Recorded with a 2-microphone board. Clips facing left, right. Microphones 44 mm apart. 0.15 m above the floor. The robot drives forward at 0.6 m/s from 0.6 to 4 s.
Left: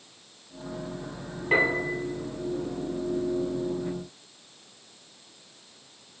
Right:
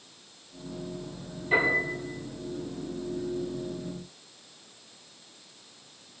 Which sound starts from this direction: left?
A piano, at 1.5 s.